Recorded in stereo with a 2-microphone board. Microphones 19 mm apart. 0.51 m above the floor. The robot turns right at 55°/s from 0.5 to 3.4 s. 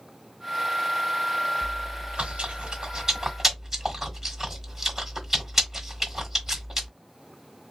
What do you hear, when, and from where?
1.6 s chewing: 70° right (ahead or behind), 1.4 m; by 6.9 s 10° right (ahead or behind), 1.4 m